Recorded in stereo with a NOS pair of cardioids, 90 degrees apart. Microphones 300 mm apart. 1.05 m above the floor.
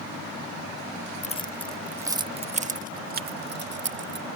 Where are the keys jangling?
25° left; by 4.3 s 40° right.